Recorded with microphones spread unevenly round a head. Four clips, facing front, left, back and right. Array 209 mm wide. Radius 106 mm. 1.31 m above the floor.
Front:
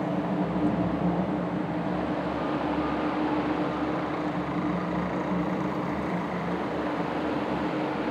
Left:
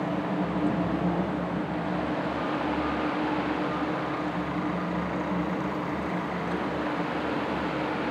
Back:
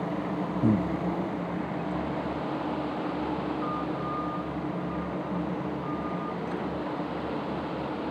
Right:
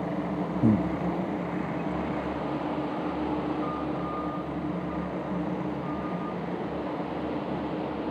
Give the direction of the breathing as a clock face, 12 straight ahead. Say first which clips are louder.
Right 6 dB, back 4 dB; 4 o'clock.